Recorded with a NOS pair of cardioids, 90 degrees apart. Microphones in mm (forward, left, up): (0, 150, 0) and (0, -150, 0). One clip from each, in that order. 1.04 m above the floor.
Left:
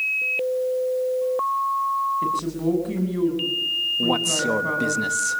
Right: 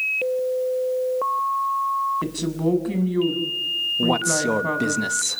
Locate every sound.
2.2 s a woman speaking: 45° right, 6.5 m
4.0 s a man speaking: 20° right, 1.2 m